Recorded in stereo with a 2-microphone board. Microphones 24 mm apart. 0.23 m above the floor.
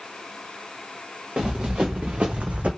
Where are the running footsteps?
40° right (ahead or behind), 1.2 m; by 2.7 s 65° right (ahead or behind), 0.6 m.